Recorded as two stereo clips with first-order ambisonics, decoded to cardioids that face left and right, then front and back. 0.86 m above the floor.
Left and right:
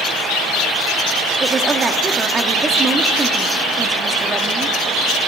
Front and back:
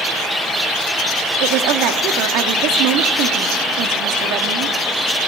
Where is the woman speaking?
160° right, 1.4 m.